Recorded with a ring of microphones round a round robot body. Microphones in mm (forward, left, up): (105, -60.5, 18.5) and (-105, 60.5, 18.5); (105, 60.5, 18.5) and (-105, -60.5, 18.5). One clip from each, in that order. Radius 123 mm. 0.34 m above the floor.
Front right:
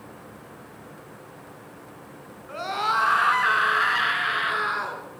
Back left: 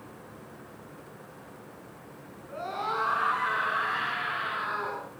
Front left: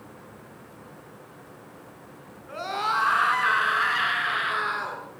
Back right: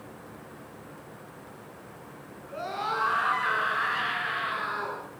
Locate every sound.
2.5 s a scream: 25° right, 4.5 m; by 5.0 s 20° right, 6 m